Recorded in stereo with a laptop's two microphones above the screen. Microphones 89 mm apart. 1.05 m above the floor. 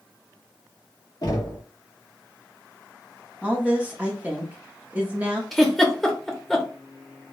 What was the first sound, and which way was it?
Knocking, 45° left (ahead or behind).